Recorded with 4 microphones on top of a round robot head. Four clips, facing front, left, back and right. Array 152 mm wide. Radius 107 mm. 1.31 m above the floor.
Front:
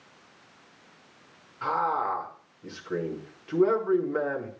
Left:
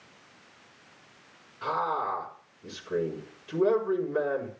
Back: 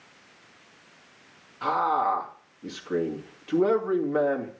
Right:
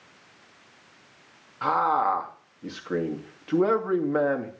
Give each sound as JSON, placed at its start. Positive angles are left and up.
{"t": 1.6, "sound": "a man speaking", "azimuth_deg": -105, "distance_m": 2.5}